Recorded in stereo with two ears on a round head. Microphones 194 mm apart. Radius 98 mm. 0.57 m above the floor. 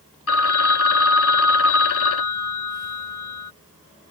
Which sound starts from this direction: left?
A phone ringing, at 0.3 s.